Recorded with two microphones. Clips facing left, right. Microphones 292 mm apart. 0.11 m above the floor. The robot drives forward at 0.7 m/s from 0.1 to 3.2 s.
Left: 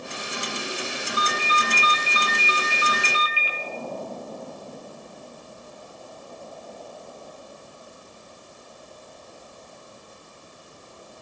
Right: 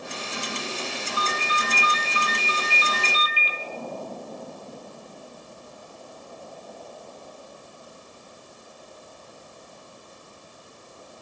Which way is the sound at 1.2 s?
30° right (ahead or behind).